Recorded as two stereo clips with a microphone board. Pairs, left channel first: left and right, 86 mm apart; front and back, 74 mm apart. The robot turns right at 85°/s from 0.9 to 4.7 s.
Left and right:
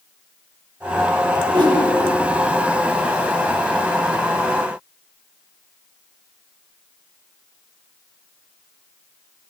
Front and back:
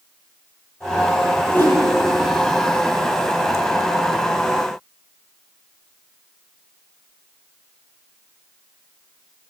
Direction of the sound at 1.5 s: 70° right.